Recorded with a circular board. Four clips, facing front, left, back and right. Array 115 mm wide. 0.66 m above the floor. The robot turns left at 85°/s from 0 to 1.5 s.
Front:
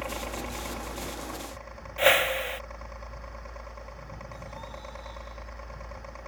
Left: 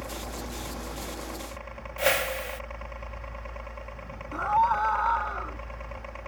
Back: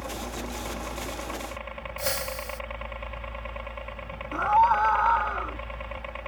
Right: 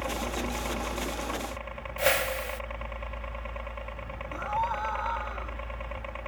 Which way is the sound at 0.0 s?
35° right.